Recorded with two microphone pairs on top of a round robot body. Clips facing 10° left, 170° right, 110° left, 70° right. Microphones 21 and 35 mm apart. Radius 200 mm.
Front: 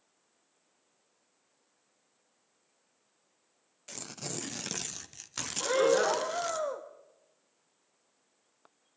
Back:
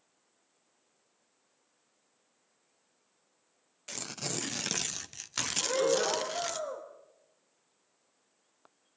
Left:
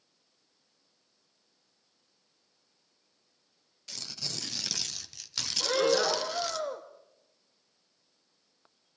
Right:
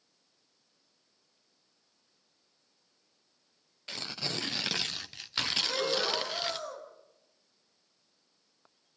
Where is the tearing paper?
115° right, 1.0 m.